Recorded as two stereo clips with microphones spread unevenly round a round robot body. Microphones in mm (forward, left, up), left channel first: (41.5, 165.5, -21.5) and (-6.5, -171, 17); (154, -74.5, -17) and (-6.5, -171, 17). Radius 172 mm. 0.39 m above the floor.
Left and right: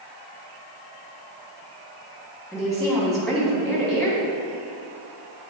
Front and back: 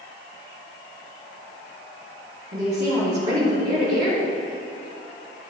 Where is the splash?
No splash in this recording.